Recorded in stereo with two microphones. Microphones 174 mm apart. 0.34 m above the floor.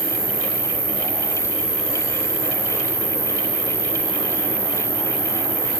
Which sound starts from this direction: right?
An insect, at 0.0 s.